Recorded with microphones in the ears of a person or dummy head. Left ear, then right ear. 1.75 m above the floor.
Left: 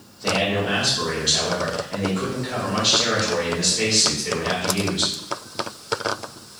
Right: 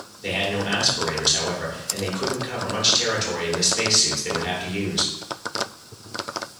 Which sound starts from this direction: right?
A man speaking, at 0.2 s.